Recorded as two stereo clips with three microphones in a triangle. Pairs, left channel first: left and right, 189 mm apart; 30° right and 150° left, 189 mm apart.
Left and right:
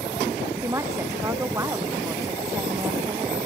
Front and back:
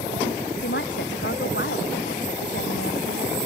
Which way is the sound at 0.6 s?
15° right.